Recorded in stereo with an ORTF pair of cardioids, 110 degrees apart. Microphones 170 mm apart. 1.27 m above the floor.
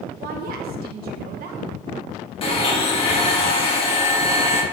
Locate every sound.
0.2 s a woman speaking: 65° right, 1.3 m
2.4 s a blender: 35° left, 1.8 m